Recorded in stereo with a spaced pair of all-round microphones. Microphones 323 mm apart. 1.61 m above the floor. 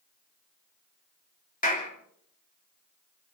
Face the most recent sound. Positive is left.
turn(degrees=25)  # may be behind; listen again after turning